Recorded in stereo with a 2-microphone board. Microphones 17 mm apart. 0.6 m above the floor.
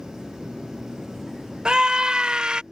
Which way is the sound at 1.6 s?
65° right (ahead or behind).